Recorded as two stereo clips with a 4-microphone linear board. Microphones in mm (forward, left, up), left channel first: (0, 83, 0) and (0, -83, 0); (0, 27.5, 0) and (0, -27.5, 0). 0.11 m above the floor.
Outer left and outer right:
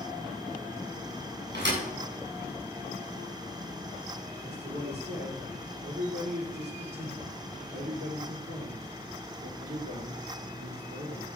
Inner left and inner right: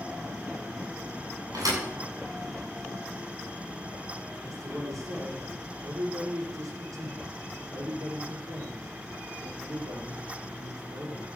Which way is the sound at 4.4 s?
75° right (ahead or behind).